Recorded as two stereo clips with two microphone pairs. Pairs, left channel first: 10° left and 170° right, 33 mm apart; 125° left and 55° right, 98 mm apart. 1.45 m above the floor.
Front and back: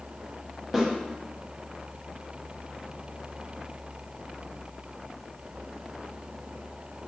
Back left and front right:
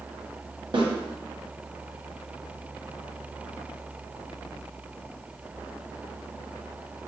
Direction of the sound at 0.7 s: 85° right.